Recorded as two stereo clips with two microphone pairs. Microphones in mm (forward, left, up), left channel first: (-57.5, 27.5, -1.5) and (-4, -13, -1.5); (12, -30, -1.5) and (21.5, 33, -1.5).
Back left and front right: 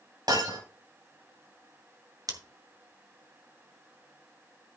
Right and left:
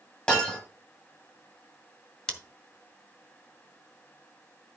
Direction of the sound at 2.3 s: 20° right.